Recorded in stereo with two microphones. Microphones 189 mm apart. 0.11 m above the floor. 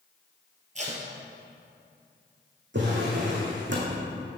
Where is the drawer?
80° right, 2.5 m.